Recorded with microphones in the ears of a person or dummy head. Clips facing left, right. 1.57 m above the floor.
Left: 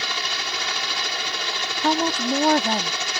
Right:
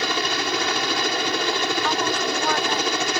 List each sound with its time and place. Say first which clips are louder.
0.0 s a helicopter: right 8 dB; 50° right (ahead or behind)
1.8 s a woman speaking: left 2 dB; 35° left (ahead or behind)